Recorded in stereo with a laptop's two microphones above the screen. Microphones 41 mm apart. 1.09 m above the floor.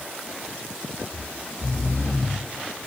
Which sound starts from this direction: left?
Snoring, at 1.1 s.